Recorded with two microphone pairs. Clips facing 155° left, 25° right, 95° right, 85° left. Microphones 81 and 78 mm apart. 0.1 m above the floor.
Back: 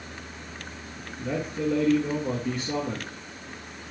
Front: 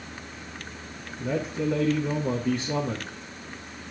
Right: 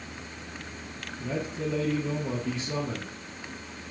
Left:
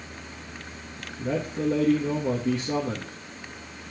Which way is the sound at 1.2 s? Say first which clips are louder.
Front 1 dB, left 5 dB; 70° left.